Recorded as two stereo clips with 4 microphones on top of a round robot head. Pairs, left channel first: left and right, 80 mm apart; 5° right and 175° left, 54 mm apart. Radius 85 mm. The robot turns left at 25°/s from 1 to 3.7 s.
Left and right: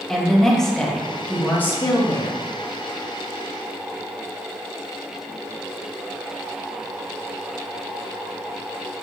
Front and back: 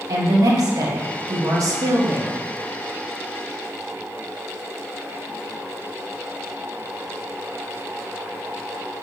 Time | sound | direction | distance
0.1 | a woman speaking | 175° left | 2 m